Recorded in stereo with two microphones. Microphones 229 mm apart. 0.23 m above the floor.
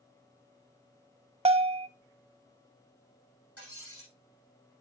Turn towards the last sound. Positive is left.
turn(degrees=80)